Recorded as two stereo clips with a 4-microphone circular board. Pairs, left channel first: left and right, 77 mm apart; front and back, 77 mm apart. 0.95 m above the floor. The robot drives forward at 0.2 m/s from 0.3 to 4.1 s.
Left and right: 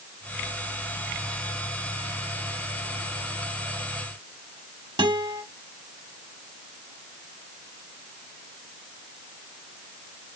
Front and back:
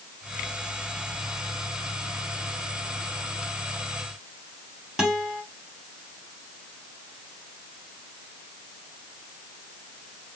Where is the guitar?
95° right, 1.2 m.